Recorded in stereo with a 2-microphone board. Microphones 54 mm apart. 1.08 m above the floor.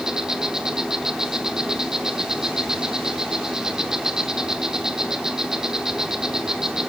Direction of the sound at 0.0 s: 10° right (ahead or behind).